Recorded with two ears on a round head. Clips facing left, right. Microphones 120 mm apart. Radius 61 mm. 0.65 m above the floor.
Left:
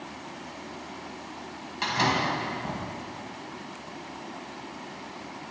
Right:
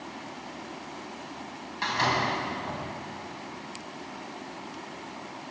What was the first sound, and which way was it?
A door slam, 25° left (ahead or behind).